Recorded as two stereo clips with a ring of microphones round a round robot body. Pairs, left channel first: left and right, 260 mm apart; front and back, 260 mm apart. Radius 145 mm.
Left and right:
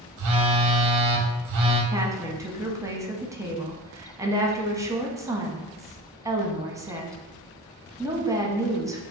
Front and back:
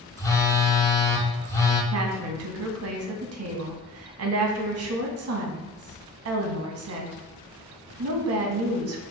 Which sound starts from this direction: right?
A phone buzzing, at 0.2 s.